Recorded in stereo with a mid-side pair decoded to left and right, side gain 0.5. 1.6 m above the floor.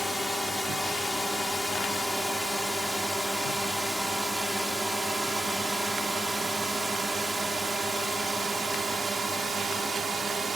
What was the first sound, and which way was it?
A drone, 5° left.